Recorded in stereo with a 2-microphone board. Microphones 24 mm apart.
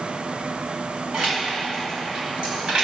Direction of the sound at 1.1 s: 65° right (ahead or behind).